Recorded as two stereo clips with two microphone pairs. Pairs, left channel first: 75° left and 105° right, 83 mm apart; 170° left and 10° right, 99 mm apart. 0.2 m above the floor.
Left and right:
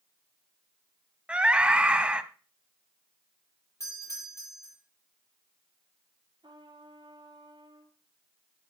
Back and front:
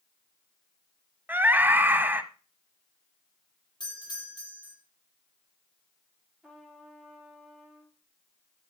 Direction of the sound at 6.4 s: 90° right.